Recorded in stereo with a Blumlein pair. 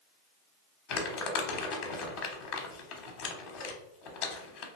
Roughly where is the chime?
I don't hear a chime.